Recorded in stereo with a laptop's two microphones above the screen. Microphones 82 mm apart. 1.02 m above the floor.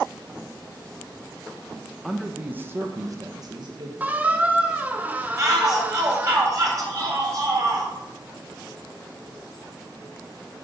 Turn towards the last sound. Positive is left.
turn(degrees=-40)  # may be behind; listen again after turning